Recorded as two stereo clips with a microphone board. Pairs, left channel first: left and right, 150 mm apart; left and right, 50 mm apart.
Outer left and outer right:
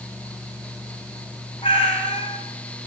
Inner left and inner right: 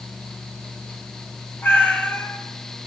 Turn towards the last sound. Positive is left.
turn(degrees=35)  # may be behind; listen again after turning